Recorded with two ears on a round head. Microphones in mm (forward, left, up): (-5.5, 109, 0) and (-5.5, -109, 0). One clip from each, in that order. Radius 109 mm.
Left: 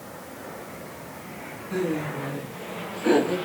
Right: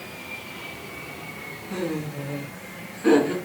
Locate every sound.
1.7 s laughter: 5° right (ahead or behind), 7 m